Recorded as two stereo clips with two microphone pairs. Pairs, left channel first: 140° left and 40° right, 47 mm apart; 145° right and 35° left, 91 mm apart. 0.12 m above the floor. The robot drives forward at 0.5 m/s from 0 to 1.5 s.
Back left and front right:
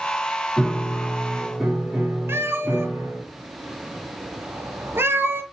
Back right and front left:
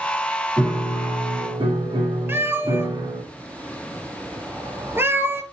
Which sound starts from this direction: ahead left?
A piano, at 0.6 s.